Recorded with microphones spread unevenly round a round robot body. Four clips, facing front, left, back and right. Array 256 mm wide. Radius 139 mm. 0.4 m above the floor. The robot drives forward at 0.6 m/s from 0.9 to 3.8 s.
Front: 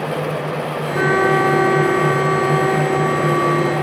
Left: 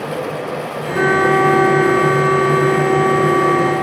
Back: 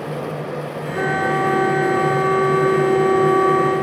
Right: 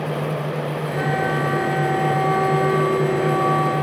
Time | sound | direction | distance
0.9 | a flute | 70° left | 1.7 m